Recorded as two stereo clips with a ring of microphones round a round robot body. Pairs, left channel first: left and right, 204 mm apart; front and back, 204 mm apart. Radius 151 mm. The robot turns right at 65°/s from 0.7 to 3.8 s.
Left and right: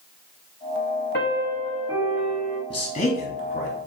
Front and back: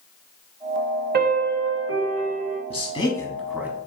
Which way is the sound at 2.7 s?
40° left.